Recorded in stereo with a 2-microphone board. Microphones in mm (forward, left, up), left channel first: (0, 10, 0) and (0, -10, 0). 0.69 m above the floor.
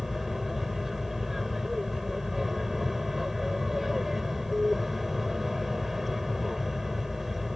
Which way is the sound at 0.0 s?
10° right (ahead or behind).